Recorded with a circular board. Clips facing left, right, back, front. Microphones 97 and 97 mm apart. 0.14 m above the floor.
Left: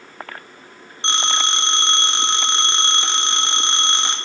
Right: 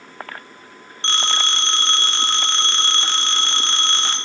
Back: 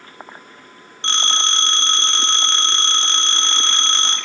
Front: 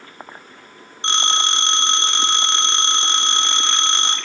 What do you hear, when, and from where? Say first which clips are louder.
1.0 s a phone ringing: left 1 dB, front 2 dB; 45° left, 0.7 m